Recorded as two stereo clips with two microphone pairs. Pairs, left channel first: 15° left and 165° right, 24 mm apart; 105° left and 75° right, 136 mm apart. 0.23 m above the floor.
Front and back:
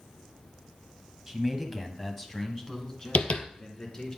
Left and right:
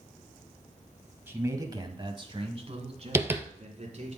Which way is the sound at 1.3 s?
120° right.